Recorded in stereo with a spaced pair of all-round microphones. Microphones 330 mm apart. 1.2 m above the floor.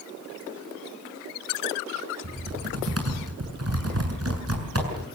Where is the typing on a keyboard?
45° right (ahead or behind), 7 m.